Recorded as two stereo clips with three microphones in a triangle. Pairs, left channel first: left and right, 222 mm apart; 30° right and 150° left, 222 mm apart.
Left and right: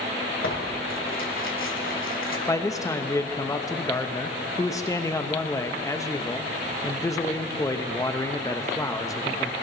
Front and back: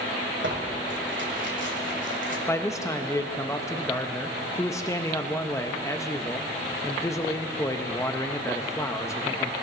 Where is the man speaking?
30° left, 0.7 m.